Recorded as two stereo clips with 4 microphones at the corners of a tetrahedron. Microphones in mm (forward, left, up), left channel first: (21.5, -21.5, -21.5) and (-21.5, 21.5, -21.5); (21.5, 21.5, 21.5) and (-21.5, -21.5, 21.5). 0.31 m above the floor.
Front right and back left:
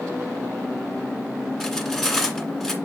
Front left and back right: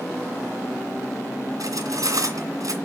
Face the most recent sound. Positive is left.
turn(degrees=-125)